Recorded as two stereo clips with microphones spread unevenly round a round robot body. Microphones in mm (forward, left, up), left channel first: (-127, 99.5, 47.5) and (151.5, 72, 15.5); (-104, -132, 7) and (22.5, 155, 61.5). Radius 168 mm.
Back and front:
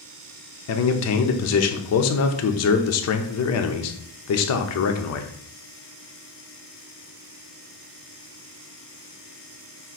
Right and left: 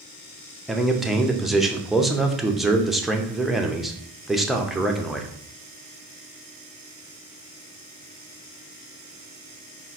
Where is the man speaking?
165° left, 0.7 m.